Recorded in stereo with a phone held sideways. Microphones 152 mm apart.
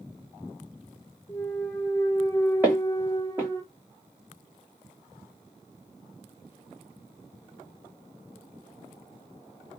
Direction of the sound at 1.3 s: 15° left (ahead or behind).